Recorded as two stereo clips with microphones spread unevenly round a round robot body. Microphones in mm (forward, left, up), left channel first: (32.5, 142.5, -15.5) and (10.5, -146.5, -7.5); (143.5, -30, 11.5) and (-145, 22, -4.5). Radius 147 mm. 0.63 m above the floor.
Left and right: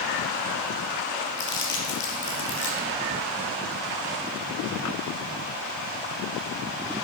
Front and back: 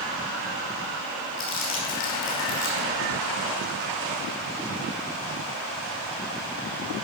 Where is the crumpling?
35° left, 3 m.